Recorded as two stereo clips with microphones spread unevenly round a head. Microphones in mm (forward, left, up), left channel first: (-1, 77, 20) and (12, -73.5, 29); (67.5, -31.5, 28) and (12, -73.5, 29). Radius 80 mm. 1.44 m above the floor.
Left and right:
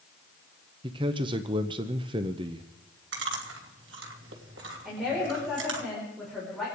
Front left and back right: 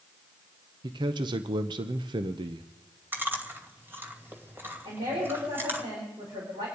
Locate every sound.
0.8 s a man speaking: 145° right, 0.7 m
3.1 s chewing: 85° right, 2.5 m
4.8 s a woman speaking: 175° right, 5 m